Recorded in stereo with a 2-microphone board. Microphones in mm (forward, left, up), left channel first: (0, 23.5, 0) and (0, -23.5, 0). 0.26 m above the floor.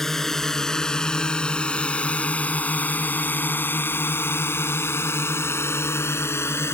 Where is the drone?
5° left (ahead or behind); by 6.8 s 65° left (ahead or behind).